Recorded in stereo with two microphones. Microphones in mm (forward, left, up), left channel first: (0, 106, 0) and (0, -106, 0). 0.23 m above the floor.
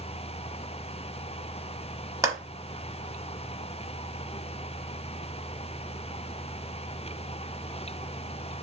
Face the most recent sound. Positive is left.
turn(degrees=-15)  # may be behind; listen again after turning